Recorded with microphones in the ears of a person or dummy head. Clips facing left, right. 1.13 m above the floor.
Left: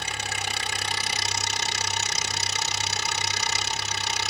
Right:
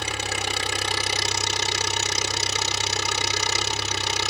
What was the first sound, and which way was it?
An engine running, 70° right (ahead or behind).